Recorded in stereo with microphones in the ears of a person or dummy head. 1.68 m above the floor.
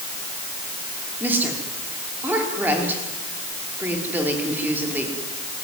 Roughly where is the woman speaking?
Centre.